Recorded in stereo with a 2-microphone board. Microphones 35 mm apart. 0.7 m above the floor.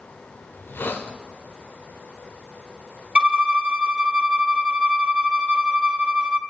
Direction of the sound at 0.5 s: 85° left.